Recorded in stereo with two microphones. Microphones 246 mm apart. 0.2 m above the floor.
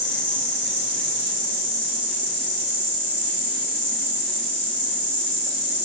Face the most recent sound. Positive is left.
turn(degrees=-50)  # may be behind; listen again after turning